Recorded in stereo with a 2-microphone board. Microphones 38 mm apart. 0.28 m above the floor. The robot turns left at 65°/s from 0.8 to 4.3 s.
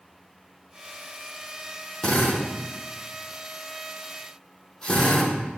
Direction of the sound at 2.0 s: 10° left (ahead or behind).